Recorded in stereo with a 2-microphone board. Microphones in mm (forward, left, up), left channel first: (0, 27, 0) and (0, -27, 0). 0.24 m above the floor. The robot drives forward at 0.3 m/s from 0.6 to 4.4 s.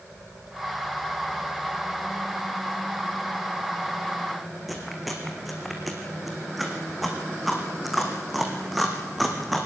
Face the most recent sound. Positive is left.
turn(degrees=0)  # may be behind; listen again after turning